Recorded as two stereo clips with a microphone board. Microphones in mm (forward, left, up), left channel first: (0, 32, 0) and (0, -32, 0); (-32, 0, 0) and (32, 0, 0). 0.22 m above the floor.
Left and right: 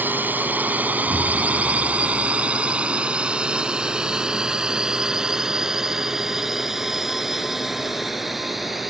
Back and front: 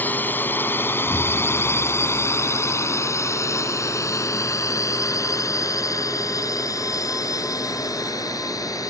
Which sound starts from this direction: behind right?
A drone, at 0.0 s.